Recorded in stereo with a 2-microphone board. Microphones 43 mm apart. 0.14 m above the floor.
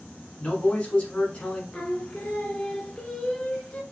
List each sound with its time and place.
0.4 s a man speaking: 25° left (ahead or behind), 1.2 m
1.7 s singing: 20° left (ahead or behind), 0.7 m